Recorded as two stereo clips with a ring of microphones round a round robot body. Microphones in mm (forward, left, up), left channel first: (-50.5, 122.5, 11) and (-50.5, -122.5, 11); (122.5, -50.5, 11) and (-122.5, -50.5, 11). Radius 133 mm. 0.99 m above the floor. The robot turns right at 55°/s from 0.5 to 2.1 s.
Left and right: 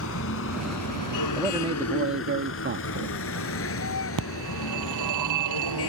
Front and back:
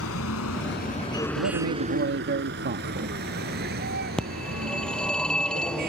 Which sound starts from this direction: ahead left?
A vehicle, at 0.0 s.